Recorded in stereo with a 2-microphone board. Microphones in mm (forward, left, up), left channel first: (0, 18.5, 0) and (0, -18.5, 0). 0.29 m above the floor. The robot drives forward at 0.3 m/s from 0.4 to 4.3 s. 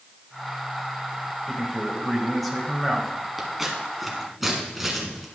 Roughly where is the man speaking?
Centre.